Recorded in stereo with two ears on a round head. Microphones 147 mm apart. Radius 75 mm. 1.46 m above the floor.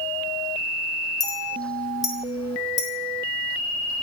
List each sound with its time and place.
1.2 s a clink: 20° left (ahead or behind), 1.4 m